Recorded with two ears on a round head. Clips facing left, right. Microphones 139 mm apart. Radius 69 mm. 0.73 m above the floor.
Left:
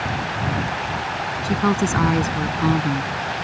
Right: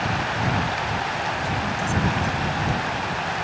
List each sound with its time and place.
1.4 s a woman speaking: 80° left